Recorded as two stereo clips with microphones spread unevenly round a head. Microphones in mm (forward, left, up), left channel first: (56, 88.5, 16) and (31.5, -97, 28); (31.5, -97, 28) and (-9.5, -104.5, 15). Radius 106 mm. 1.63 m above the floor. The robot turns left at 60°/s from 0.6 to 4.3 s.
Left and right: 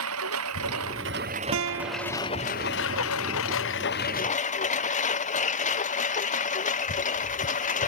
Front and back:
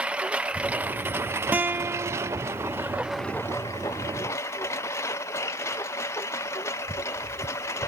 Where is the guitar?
110° right; by 2.4 s 165° right.